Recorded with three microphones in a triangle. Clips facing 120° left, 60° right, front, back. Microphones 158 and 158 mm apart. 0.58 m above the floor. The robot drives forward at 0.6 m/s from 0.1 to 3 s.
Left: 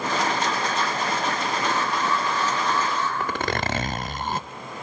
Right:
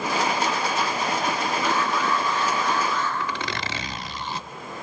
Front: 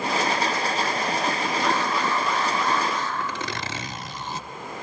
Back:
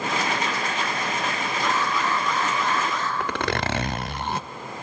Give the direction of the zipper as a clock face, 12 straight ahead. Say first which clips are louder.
Left 4 dB, back 5 dB; 7 o'clock.